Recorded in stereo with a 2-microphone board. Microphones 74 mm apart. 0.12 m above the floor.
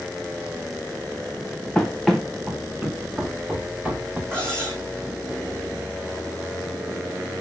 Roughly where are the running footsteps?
Centre.